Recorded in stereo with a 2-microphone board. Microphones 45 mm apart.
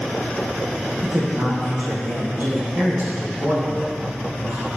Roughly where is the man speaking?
Right.